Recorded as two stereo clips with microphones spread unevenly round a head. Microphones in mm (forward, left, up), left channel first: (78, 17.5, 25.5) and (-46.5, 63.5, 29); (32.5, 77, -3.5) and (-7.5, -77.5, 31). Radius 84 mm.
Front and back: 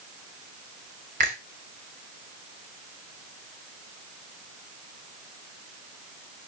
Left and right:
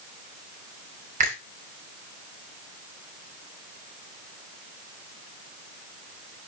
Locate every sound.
1.2 s a finger snap: 155° right, 3 m